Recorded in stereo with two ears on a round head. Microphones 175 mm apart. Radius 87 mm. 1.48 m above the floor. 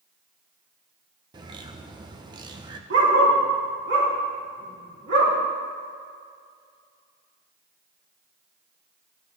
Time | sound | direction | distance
1.3 | a bird | 20° right (ahead or behind) | 0.8 m
2.9 | a dog barking | 65° right (ahead or behind) | 4 m